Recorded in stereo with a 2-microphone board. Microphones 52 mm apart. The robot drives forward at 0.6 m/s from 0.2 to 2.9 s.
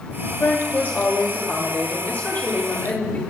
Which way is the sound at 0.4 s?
40° left (ahead or behind).